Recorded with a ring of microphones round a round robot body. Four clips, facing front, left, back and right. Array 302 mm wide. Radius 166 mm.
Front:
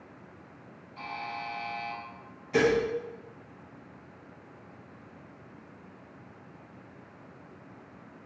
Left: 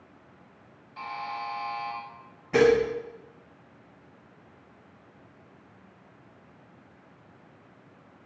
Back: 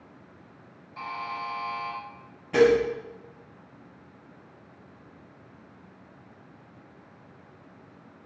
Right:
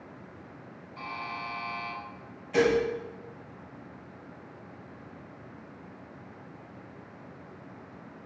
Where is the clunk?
No clunk in this recording.